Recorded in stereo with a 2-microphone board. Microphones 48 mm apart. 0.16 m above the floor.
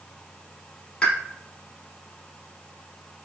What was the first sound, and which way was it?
A pop, 20° left (ahead or behind).